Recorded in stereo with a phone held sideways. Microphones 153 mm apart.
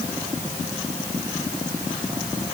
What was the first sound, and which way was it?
Only background noise.